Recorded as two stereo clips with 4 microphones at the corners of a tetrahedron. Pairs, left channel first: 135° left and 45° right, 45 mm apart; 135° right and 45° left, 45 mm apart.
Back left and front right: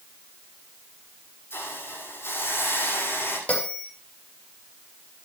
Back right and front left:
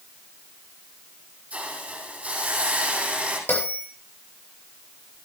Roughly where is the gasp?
No gasp in this recording.